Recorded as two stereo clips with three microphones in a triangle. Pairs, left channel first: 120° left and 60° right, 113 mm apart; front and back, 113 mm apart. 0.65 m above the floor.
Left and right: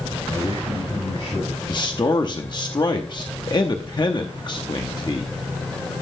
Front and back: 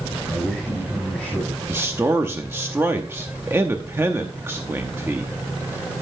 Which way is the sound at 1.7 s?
125° left.